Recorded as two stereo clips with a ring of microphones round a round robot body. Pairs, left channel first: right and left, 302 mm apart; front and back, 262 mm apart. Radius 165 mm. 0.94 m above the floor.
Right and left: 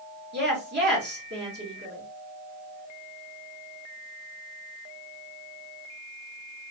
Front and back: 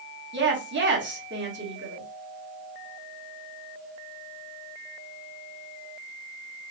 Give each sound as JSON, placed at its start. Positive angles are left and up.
{"t": 0.3, "sound": "a woman speaking", "azimuth_deg": 140, "distance_m": 1.6}